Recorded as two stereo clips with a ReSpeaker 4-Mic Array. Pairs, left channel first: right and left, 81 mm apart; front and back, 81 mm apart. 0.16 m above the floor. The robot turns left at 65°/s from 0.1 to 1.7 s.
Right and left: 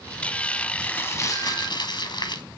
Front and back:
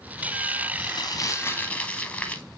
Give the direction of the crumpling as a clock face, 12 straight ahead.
12 o'clock.